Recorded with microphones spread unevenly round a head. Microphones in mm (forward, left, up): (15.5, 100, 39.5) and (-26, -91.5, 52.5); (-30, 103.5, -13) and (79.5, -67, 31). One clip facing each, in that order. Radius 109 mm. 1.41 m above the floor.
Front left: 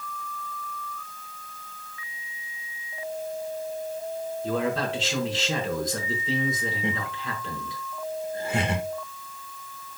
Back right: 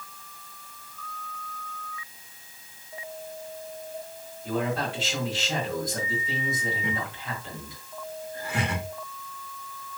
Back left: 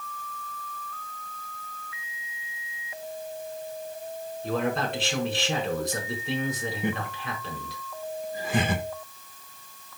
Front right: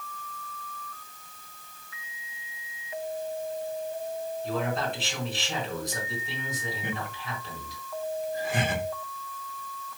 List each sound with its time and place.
4.4 s a man speaking: 95° left, 5 m
6.8 s laughter: 145° left, 1.6 m